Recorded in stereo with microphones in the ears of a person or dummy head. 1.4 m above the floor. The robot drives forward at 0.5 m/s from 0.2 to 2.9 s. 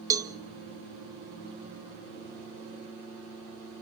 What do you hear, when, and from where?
0.1 s a cowbell: 15° right (ahead or behind), 0.8 m